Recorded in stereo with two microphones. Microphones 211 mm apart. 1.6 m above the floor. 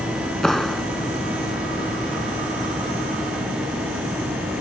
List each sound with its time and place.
0.4 s a clap: centre (ahead or behind)